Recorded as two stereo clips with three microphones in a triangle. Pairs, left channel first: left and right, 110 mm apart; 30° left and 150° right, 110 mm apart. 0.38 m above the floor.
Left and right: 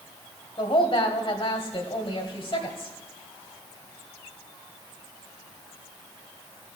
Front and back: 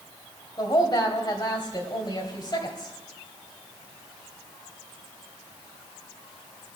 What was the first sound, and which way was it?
A woman speaking, 70° left.